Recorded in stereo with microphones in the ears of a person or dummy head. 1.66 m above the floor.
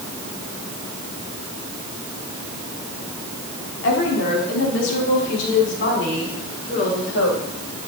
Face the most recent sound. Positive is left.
turn(degrees=75)  # may be behind; listen again after turning